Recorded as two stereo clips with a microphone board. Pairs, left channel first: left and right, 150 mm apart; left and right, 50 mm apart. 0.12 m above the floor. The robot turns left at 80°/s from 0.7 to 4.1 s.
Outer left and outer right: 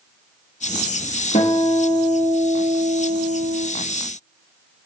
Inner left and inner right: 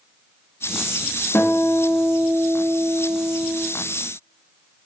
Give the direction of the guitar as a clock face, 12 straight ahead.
8 o'clock.